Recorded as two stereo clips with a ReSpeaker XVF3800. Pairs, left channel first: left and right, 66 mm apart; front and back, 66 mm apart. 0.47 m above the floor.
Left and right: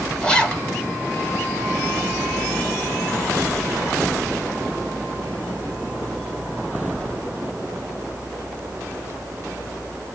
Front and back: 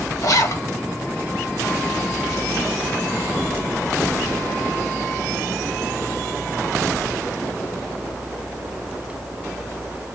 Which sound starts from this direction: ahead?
A zipper, at 0.2 s.